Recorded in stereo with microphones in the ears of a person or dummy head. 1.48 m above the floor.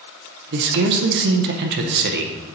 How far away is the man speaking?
About 0.7 m.